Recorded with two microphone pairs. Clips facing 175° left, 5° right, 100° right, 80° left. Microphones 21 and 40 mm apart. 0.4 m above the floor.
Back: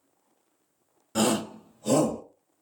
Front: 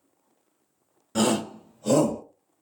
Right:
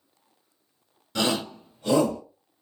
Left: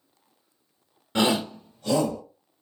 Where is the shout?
70° left, 0.8 m; by 2.2 s 65° right, 1.2 m.